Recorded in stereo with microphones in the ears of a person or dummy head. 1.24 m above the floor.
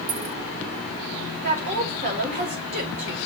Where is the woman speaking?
40° right (ahead or behind), 2.5 m.